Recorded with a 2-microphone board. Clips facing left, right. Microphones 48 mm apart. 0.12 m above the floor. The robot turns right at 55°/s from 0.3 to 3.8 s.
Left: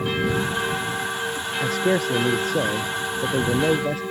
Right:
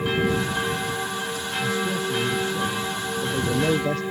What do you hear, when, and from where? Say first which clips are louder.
1.6 s a man speaking: left 5 dB; 55° left; by 4.0 s 175° left